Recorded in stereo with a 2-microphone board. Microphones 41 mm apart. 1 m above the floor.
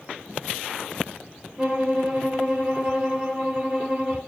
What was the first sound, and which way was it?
A violin, 25° right (ahead or behind).